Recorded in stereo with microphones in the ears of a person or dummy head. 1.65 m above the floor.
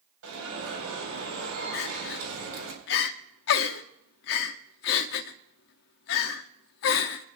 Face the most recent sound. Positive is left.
turn(degrees=55)  # may be behind; listen again after turning